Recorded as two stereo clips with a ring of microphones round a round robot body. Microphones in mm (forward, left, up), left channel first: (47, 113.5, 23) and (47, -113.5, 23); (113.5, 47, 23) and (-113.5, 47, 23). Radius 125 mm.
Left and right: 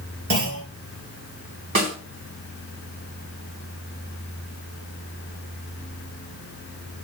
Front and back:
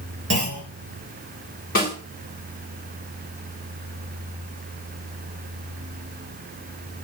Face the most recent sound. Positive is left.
turn(degrees=-55)